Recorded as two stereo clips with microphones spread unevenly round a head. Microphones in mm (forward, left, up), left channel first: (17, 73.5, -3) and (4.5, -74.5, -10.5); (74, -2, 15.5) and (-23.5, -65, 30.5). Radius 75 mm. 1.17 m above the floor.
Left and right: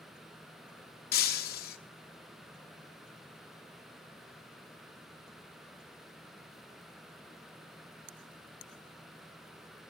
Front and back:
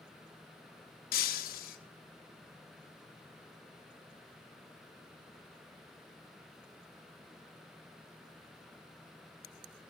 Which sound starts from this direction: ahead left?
Breaking glass, at 1.1 s.